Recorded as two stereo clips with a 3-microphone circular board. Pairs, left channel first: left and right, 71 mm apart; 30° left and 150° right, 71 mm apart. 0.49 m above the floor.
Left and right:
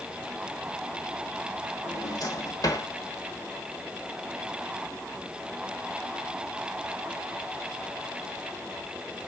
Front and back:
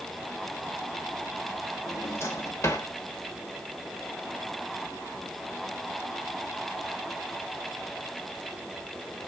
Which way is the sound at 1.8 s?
75° left.